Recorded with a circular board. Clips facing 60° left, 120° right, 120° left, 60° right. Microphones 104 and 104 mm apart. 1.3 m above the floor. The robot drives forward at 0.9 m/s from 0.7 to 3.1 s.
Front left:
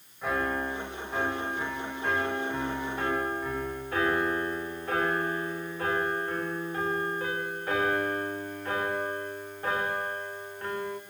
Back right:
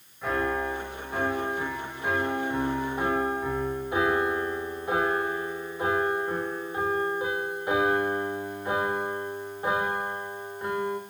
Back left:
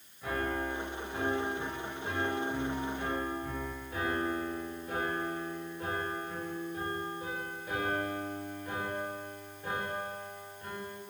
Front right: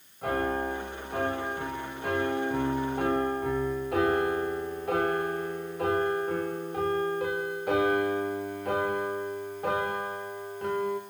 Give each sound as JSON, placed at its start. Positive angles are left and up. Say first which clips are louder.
{"t": 0.2, "sound": "a piano", "louder": "back right 2 dB, front right 5 dB", "azimuth_deg": -30, "distance_m": 5.0}